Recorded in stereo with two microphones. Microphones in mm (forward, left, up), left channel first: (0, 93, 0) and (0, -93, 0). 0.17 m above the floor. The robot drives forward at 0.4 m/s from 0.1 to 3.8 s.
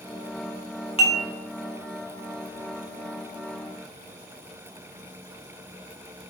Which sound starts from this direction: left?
Dishes clattering, at 1.0 s.